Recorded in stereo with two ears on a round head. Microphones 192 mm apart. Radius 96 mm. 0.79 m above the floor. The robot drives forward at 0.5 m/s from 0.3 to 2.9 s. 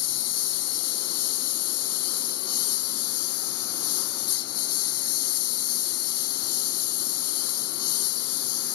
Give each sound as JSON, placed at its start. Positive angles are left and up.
{"t": 0.0, "sound": "a lawn mower", "side_deg": 85}